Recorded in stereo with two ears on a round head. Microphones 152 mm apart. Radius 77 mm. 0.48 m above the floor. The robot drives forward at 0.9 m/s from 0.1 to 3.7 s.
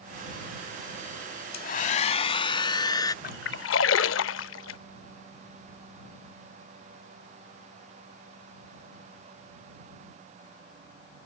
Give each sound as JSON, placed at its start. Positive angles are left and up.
{"t": 1.5, "sound": "a hair dryer", "side_deg": 55}
{"t": 3.2, "sound": "a splash", "side_deg": 45}